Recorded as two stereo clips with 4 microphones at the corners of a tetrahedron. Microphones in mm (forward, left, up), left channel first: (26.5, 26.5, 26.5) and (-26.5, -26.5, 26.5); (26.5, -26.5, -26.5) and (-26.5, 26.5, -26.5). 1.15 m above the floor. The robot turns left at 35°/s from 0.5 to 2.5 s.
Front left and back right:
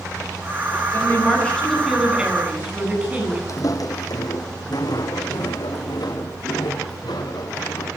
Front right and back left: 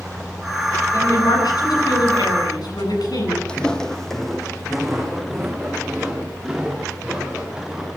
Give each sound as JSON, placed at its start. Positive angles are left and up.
{"t": 0.9, "sound": "a woman speaking", "azimuth_deg": -10, "distance_m": 9.5}
{"t": 3.5, "sound": "footsteps", "azimuth_deg": 25, "distance_m": 1.9}